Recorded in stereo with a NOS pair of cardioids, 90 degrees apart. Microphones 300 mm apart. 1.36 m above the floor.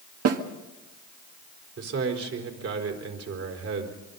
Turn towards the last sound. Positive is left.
turn(degrees=-50)